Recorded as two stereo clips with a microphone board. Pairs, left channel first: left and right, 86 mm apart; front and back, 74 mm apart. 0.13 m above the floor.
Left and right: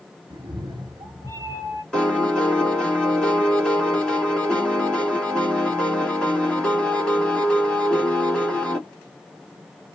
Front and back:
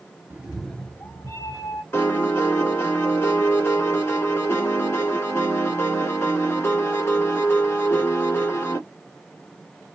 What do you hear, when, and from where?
0.3 s a cat meowing: 120° right, 0.6 m; by 1.8 s 25° right, 1.2 m
1.9 s a piano: 20° left, 1.3 m